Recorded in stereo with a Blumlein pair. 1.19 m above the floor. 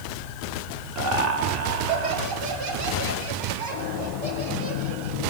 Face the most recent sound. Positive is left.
turn(degrees=-35)